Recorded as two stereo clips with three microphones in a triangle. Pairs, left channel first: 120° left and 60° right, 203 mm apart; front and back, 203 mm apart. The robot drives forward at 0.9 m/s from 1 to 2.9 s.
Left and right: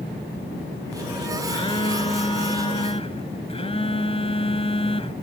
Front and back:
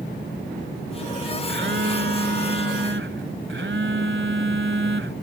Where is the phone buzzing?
175° left; by 5.1 s straight behind.